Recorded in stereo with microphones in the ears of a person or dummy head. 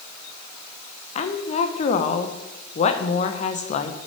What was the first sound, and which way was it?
A woman speaking, 40° left (ahead or behind).